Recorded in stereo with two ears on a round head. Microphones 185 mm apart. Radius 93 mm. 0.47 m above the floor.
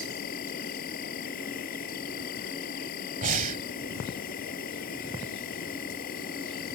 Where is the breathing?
40° right (ahead or behind).